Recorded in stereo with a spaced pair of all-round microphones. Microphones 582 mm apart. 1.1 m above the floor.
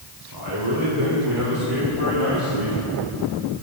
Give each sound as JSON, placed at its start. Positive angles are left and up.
{"t": 0.3, "sound": "a man speaking", "side_deg": -45, "distance_m": 4.5}